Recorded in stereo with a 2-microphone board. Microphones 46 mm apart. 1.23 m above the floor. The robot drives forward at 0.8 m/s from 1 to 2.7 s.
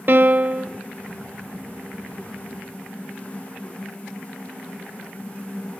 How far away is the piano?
About 0.6 m.